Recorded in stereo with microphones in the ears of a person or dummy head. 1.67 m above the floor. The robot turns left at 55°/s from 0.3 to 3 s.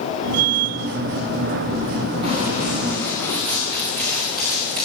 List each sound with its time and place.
2.2 s running footsteps: 30° right (ahead or behind), 9.5 m; by 4.8 s 50° right (ahead or behind), 9.5 m